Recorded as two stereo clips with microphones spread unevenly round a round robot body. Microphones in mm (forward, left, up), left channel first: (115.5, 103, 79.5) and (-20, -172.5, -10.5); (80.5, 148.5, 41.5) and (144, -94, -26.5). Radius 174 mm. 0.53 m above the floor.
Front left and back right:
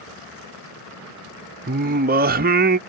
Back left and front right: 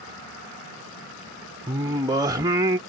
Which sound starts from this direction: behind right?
Singing, at 1.7 s.